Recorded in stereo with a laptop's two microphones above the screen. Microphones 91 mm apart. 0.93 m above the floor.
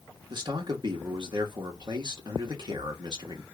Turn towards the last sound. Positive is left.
turn(degrees=-50)  # may be behind; listen again after turning